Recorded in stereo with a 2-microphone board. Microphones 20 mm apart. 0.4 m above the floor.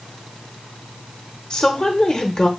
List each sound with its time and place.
1.5 s a woman speaking: 40° left (ahead or behind), 1.0 m